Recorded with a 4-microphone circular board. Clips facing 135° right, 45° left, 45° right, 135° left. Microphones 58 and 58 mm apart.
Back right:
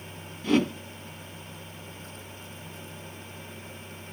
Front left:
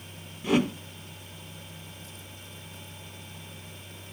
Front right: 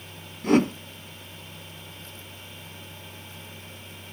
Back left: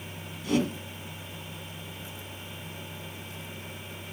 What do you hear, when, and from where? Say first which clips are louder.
0.4 s a whoosh: back right 1 dB, front right 6 dB; 35° right, 1.0 m